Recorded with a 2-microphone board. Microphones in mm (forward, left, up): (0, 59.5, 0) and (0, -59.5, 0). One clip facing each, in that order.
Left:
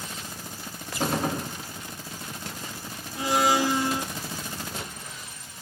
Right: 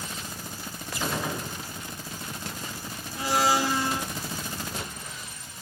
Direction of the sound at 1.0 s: 45° left (ahead or behind).